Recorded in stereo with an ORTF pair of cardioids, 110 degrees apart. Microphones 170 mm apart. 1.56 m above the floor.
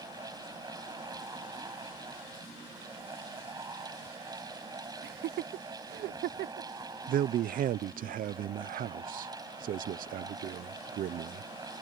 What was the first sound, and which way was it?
A fan, 20° right.